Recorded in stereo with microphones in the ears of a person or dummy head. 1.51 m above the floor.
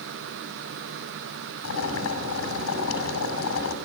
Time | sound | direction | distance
1.6 | boiling | 85° left | 6 m